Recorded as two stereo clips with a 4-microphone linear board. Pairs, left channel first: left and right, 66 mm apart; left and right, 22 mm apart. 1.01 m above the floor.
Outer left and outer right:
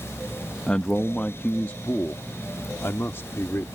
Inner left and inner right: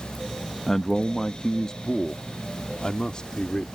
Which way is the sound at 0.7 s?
15° left (ahead or behind).